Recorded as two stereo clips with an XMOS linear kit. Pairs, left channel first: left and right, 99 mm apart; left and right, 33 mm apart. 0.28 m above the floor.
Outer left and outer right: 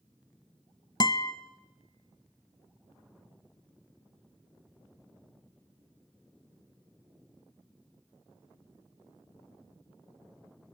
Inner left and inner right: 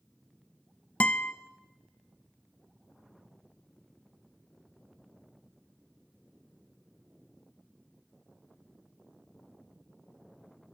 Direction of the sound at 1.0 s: 45° left (ahead or behind).